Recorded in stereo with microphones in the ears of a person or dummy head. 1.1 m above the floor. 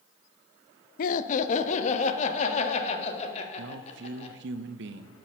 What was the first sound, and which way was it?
Laughter, 50° left (ahead or behind).